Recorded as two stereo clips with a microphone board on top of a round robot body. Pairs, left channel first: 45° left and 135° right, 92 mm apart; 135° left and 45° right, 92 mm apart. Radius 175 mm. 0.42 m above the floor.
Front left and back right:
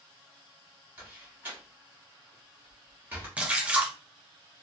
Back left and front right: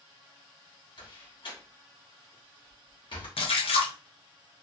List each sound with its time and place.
1.0 s a door slam: 155° left, 1.5 m
3.4 s a splash: 145° left, 0.7 m